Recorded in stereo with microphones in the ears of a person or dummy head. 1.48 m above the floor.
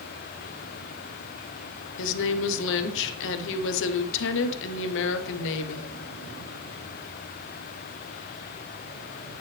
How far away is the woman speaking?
About 0.8 m.